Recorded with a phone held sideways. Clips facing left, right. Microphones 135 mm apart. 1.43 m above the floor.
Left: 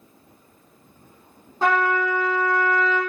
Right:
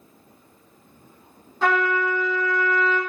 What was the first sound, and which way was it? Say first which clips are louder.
A trumpet: left 1 dB; 40° left (ahead or behind).